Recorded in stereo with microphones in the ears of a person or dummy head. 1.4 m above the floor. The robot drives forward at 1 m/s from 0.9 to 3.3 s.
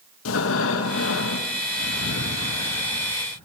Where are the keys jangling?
No keys jangling in this recording.